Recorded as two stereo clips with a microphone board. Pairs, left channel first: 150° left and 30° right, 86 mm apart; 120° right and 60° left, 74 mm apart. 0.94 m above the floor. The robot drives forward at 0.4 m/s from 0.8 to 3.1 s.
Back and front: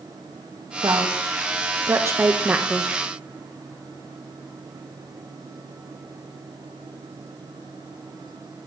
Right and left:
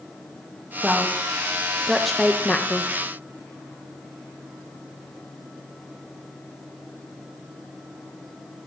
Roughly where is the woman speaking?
Ahead.